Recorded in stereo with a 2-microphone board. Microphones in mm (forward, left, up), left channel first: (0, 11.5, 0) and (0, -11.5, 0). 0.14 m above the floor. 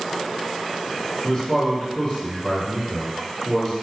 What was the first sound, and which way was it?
A man speaking, 30° left (ahead or behind).